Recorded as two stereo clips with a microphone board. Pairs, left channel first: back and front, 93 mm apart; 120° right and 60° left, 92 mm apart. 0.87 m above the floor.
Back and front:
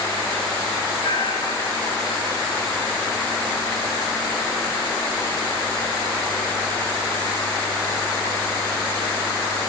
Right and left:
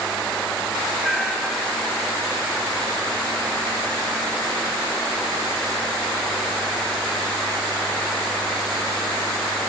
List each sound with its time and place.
1.0 s a cat meowing: 150° left, 5 m